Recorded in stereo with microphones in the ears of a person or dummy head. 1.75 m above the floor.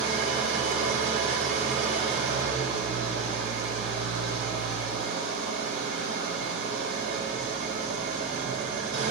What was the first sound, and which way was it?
An engine running, 40° right (ahead or behind).